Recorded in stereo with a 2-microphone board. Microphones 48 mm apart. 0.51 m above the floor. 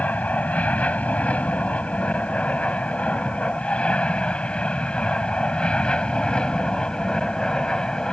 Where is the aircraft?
30° left (ahead or behind); by 8.1 s 15° left (ahead or behind).